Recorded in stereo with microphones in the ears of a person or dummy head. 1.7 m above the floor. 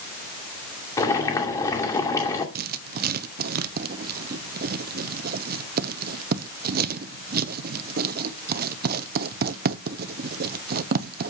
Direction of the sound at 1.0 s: 20° left (ahead or behind).